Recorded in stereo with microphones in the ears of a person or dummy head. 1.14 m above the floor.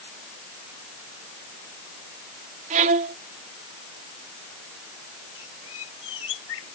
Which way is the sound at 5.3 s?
75° left (ahead or behind).